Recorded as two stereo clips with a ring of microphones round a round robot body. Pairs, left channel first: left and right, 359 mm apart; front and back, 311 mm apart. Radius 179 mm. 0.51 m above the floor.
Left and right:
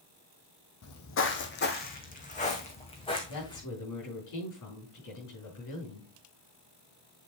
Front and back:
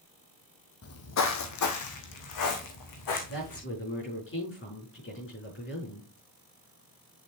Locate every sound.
0.8 s footsteps: 40° left, 1.4 m; by 3.6 s 10° left, 3 m
3.3 s a woman speaking: 50° left, 6 m